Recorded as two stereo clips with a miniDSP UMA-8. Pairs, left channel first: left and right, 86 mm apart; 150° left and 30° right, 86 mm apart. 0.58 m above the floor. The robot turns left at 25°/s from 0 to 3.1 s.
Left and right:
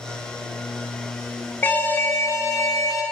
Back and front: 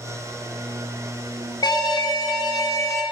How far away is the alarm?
About 1.4 m.